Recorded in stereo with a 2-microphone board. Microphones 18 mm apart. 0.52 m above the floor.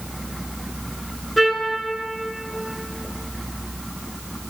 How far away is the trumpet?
About 1.1 m.